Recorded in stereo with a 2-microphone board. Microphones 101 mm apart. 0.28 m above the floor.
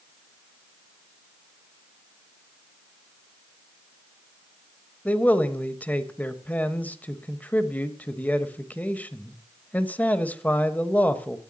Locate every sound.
5.0 s a man speaking: 15° left (ahead or behind), 1.2 m